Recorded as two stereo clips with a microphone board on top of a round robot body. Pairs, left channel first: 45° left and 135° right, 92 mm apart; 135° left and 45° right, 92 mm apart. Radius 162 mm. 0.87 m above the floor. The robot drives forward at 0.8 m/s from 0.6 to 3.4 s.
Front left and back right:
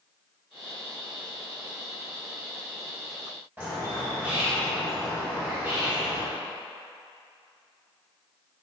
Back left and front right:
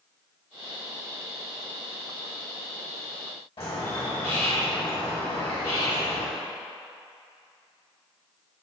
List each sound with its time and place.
3.6 s a bird: 155° left, 2 m